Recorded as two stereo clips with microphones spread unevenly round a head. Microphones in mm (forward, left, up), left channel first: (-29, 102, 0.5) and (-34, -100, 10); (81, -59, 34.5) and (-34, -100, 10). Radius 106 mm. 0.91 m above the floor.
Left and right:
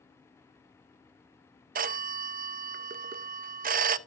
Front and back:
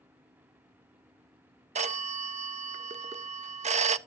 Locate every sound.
1.8 s a phone ringing: 140° right, 0.6 m